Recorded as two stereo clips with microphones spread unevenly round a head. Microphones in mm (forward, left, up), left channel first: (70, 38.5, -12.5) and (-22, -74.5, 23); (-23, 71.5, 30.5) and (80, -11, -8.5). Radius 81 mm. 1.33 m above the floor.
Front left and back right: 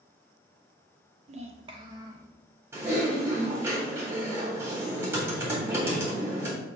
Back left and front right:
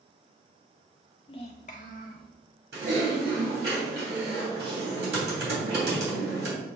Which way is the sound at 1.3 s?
170° right.